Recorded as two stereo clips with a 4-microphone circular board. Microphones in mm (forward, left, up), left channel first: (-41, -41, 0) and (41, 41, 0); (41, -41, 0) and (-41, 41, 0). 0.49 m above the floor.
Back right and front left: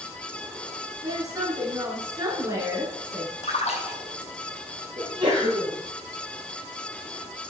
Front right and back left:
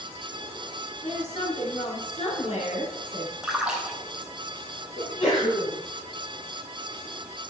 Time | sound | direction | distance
1.0 | a woman speaking | 20° right | 6 m
3.4 | a splash | 145° right | 3 m
5.0 | a sneeze | 5° right | 7.5 m